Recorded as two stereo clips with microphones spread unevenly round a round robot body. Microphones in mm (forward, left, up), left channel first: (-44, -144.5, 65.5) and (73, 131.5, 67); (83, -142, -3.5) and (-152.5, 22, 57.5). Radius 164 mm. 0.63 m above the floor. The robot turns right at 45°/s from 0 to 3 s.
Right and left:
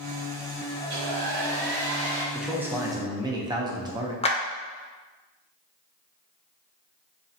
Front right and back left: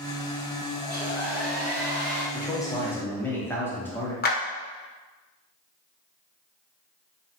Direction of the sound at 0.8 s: 55° left.